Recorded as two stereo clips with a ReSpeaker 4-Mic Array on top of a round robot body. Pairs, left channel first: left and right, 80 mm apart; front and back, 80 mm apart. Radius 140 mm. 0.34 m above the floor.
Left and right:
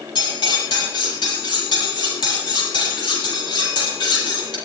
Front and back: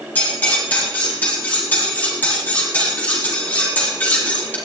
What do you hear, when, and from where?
0.1 s cutlery clinking: 70° left, 7.5 m